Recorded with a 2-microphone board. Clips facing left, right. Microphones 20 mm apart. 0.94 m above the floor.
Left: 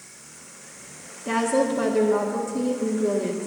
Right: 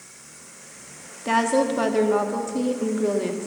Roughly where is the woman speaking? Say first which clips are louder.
Right 2 dB; right.